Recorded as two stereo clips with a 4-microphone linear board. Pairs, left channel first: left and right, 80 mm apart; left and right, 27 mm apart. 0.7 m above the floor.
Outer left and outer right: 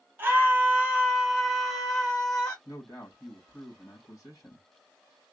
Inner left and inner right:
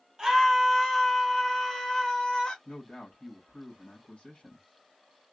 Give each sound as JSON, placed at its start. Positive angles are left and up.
{"t": 0.2, "sound": "a scream", "side_deg": -30, "distance_m": 1.2}
{"t": 2.6, "sound": "a man speaking", "side_deg": 45, "distance_m": 1.6}